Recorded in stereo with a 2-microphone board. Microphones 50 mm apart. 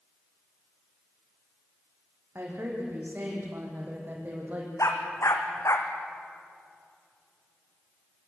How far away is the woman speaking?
About 7.5 m.